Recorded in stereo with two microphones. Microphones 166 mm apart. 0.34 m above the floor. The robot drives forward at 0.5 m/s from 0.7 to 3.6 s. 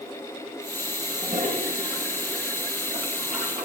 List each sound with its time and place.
1.1 s a toilet flushing: 55° right (ahead or behind), 3 m; by 3.6 s 65° right (ahead or behind), 3 m